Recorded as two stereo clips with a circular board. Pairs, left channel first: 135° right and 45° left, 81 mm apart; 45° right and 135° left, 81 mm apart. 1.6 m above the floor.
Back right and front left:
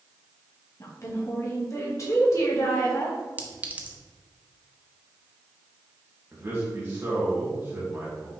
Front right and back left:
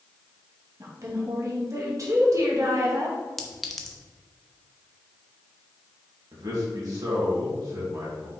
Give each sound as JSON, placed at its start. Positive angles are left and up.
{"t": 0.8, "sound": "a woman speaking", "azimuth_deg": 180, "distance_m": 2.0}
{"t": 3.4, "sound": "a clink", "azimuth_deg": 35, "distance_m": 0.9}
{"t": 6.3, "sound": "a man speaking", "azimuth_deg": 105, "distance_m": 2.5}